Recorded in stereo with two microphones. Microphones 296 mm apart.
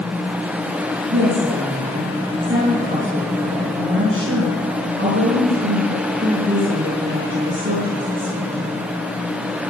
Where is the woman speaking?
40° right (ahead or behind), 4.5 m.